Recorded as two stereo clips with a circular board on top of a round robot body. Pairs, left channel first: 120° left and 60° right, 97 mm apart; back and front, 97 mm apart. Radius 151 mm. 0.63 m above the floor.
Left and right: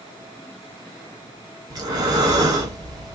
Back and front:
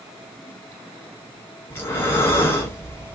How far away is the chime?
I don't hear a chime.